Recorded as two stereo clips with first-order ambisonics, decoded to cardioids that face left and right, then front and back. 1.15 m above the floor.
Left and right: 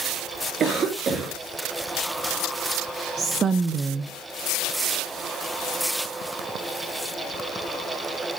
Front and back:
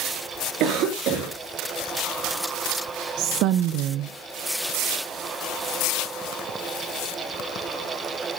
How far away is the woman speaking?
About 0.8 m.